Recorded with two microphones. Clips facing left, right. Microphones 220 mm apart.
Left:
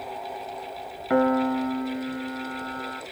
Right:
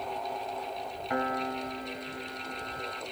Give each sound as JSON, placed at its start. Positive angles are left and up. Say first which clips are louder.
{"t": 1.1, "sound": "a piano", "louder": "left 12 dB", "side_deg": 60, "distance_m": 0.6}